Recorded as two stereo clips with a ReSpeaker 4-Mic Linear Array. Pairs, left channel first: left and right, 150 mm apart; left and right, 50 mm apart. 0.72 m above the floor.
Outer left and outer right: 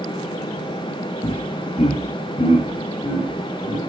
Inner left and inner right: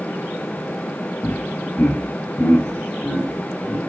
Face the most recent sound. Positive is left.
turn(degrees=35)  # may be behind; listen again after turning